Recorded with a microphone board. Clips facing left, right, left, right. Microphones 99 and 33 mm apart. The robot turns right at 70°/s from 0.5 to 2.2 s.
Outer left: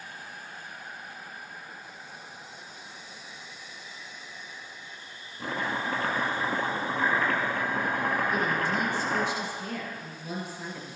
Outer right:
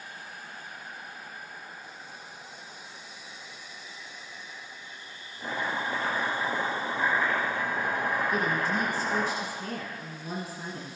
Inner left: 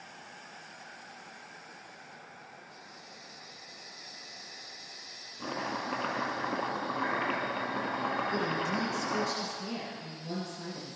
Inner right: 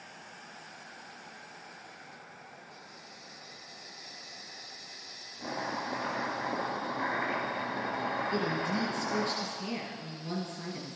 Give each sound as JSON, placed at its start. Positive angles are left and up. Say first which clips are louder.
{"t": 5.4, "sound": "chopping", "louder": "even, even", "side_deg": 60, "distance_m": 1.6}
{"t": 8.3, "sound": "a woman speaking", "louder": "even, even", "side_deg": -40, "distance_m": 1.3}